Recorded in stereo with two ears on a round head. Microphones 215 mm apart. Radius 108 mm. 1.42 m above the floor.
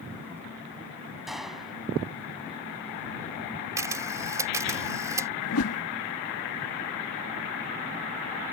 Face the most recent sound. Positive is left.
turn(degrees=70)  # may be behind; listen again after turning